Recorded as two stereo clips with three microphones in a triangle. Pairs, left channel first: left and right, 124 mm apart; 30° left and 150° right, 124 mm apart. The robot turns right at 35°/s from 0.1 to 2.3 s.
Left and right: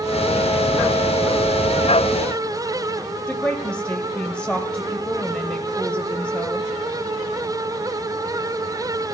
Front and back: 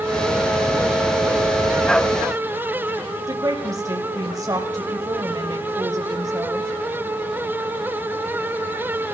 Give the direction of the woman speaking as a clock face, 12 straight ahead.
6 o'clock.